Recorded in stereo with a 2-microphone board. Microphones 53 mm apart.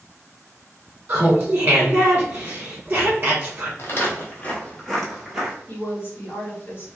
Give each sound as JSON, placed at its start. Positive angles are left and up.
{"t": 1.1, "sound": "laughter", "side_deg": -35, "distance_m": 1.0}
{"t": 3.8, "sound": "footsteps", "side_deg": 50, "distance_m": 1.1}
{"t": 5.7, "sound": "a woman speaking", "side_deg": 40, "distance_m": 1.3}